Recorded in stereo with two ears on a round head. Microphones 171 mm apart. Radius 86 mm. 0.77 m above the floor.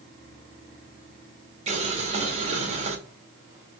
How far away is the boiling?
About 1.0 m.